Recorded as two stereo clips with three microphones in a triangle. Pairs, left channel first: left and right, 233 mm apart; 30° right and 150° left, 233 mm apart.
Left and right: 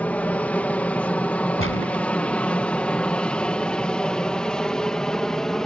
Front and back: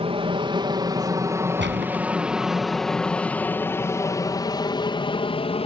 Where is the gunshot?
115° left.